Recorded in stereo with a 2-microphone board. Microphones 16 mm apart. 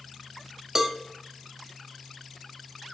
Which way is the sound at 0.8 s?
25° right (ahead or behind).